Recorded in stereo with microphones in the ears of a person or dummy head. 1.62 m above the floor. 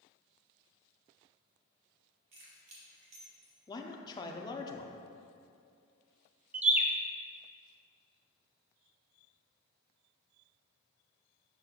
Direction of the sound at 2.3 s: 35° right (ahead or behind).